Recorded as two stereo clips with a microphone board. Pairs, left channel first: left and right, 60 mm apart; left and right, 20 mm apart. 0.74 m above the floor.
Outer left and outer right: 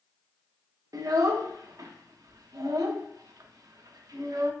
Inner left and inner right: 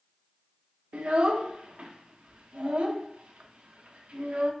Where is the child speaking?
80° right, 0.6 m.